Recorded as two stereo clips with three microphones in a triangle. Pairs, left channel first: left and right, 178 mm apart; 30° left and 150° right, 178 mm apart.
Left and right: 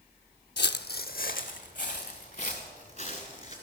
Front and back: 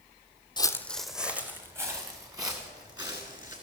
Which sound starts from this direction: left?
Footsteps, at 0.6 s.